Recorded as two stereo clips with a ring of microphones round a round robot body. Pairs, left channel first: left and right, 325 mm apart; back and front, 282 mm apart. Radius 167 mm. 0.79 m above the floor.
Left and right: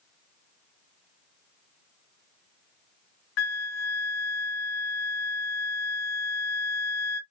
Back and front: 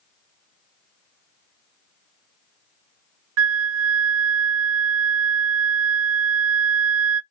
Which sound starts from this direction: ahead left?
A flute, at 3.4 s.